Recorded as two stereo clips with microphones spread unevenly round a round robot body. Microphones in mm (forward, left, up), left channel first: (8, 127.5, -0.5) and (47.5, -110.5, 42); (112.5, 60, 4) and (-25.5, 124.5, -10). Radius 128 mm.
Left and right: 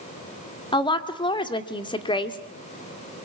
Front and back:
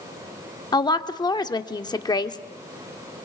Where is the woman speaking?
40° left, 1.8 m.